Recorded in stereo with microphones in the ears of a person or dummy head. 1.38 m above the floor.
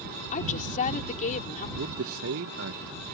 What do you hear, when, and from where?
0.3 s a woman speaking: 45° left (ahead or behind)
1.8 s a man speaking: 75° right (ahead or behind)